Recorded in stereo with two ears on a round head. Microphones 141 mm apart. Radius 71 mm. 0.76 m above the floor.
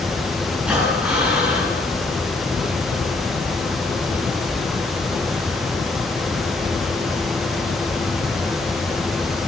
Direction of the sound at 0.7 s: 10° right (ahead or behind).